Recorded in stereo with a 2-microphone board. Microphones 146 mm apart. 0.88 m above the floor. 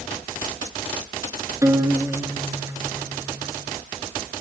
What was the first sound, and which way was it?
A guitar, 20° right (ahead or behind).